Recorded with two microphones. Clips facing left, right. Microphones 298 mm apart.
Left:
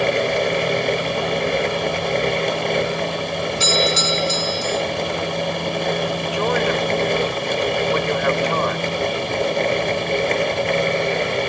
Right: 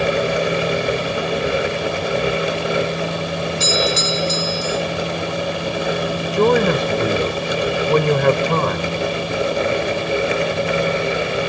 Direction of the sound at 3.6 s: 70° right (ahead or behind).